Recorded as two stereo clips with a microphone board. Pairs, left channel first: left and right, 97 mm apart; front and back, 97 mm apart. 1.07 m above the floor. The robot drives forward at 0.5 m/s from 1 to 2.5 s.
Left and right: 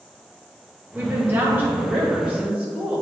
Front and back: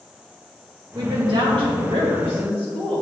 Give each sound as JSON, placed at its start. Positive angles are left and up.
{"t": 0.9, "sound": "a woman speaking", "azimuth_deg": -155, "distance_m": 1.5}